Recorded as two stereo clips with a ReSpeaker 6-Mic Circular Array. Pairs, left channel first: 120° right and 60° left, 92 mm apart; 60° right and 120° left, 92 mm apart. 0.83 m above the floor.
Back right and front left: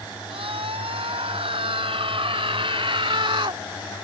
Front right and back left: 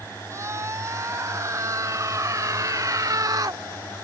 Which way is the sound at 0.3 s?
60° left.